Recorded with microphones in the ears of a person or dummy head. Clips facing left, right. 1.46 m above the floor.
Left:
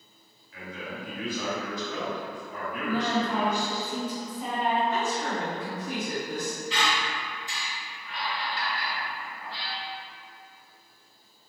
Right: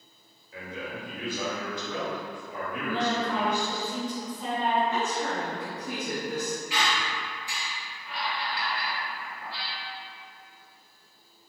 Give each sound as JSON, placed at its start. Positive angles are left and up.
{"t": 0.5, "sound": "a man speaking", "side_deg": -20, "distance_m": 1.3}
{"t": 2.8, "sound": "a woman speaking", "side_deg": 20, "distance_m": 1.3}
{"t": 4.9, "sound": "a woman speaking", "side_deg": -50, "distance_m": 1.2}
{"t": 6.7, "sound": "a squeak", "side_deg": -5, "distance_m": 1.1}